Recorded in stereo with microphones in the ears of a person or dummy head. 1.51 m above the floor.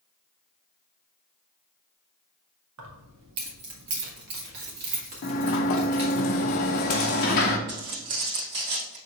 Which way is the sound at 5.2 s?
40° left (ahead or behind).